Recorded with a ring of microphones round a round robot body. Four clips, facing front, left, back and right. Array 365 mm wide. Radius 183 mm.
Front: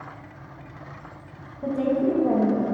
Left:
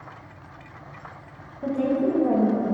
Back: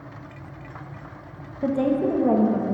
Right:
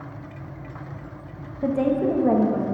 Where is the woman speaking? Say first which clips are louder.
Right 2 dB, back 1 dB; 135° right, 1.0 m; by 2.6 s 130° right, 1.5 m.